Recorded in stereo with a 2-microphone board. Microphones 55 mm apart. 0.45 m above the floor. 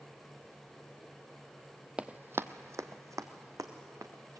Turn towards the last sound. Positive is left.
turn(degrees=-75)  # may be behind; listen again after turning